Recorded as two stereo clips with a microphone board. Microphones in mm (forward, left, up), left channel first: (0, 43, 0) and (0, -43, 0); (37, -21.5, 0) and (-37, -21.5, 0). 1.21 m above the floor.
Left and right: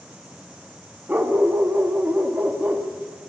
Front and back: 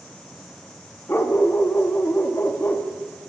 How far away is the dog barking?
About 0.7 m.